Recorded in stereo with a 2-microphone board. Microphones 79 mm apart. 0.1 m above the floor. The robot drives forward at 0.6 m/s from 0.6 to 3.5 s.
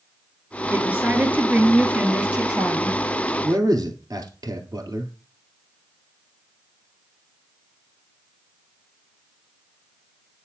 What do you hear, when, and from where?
0.7 s a woman speaking: 20° right (ahead or behind), 1.3 m; by 3.0 s 15° right (ahead or behind), 2 m
3.4 s a man speaking: 50° right (ahead or behind), 1.9 m